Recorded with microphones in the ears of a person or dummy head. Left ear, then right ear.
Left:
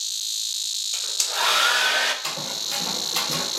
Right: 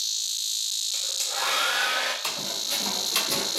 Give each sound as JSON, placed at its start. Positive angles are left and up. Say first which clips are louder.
{"t": 0.9, "sound": "a hair dryer", "louder": "left 3 dB", "side_deg": 25, "distance_m": 0.5}
{"t": 2.2, "sound": "running footsteps", "louder": "left 1 dB", "side_deg": -20, "distance_m": 1.7}